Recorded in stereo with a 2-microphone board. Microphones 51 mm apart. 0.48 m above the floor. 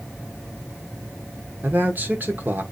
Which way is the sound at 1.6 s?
40° right (ahead or behind).